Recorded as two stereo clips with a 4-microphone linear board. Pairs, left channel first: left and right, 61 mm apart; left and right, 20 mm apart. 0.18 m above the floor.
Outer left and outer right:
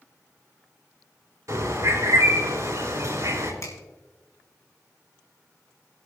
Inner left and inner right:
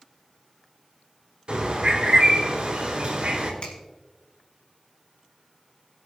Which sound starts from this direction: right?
A bird, at 1.5 s.